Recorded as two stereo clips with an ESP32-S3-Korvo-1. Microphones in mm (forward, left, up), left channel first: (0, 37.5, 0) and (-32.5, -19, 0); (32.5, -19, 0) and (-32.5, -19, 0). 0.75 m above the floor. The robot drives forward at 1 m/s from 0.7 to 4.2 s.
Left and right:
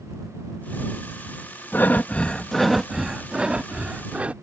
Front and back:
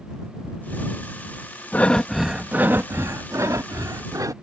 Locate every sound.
1.7 s breathing: 35° left; by 4.3 s 170° left